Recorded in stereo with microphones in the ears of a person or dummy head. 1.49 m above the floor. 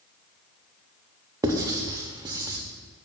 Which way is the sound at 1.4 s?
20° right (ahead or behind).